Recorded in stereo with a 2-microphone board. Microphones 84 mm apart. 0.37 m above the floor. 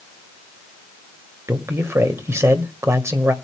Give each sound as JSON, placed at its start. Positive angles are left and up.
{"t": 1.5, "sound": "a man speaking", "side_deg": -30, "distance_m": 1.7}